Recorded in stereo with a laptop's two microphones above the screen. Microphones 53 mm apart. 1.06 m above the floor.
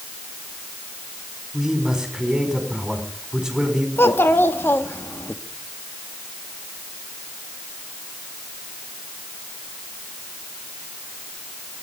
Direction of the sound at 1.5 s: 10° right (ahead or behind).